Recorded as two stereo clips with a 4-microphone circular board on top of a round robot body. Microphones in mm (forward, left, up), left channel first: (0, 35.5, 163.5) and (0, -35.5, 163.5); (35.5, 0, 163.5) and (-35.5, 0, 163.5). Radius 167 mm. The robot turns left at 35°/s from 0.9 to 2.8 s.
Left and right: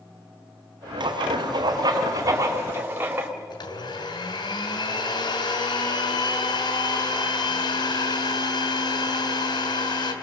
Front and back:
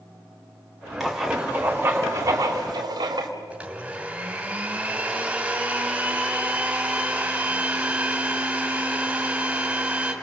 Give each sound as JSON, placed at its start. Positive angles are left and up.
{"t": 1.0, "sound": "writing", "azimuth_deg": -90, "distance_m": 2.0}
{"t": 3.5, "sound": "a blender", "azimuth_deg": 105, "distance_m": 2.5}